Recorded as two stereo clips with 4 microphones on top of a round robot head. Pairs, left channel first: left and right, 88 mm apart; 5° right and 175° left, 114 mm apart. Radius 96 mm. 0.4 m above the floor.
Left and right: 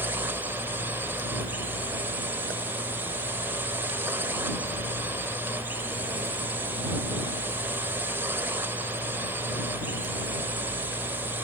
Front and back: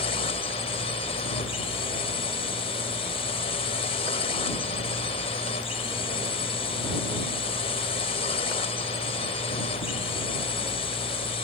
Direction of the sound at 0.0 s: 20° right.